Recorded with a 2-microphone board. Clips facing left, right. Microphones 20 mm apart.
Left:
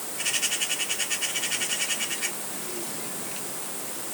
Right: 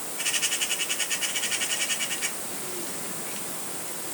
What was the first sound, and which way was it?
Only background noise.